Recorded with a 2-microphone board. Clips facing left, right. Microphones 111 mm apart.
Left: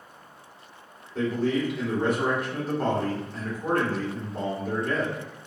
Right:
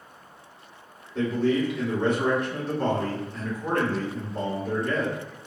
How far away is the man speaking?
About 1.8 m.